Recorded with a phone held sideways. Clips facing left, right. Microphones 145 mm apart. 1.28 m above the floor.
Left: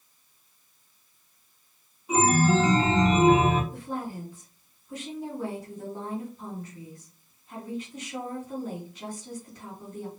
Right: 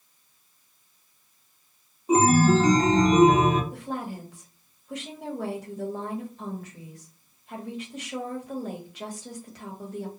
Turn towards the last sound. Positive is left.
turn(degrees=-80)